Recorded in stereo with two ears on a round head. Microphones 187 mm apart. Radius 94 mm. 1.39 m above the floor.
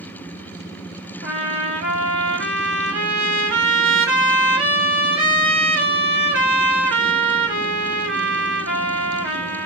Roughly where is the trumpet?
Right.